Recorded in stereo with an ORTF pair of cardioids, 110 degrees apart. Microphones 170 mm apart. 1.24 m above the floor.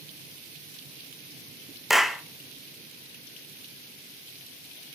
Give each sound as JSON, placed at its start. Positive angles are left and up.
{"t": 1.9, "sound": "a clap", "azimuth_deg": 0, "distance_m": 1.1}